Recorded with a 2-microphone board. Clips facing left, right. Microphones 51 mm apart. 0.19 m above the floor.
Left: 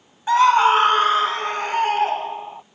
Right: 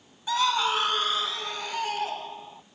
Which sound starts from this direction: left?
A scream, at 0.3 s.